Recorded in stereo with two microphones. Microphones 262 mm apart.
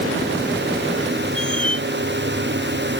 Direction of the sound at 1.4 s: 20° right (ahead or behind).